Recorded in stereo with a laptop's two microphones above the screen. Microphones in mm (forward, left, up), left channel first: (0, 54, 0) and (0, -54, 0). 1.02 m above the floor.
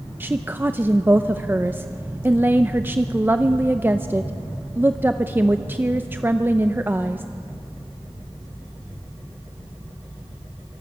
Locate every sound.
0.2 s a woman speaking: 20° right (ahead or behind), 0.6 m